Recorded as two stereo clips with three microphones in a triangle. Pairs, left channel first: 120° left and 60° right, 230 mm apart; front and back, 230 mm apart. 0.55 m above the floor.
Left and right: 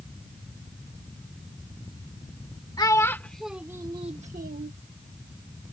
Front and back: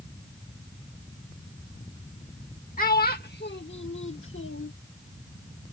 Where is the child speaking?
50° left; by 4.7 s 20° right.